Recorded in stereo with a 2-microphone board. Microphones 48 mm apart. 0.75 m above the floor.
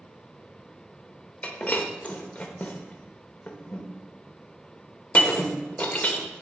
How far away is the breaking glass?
About 0.9 m.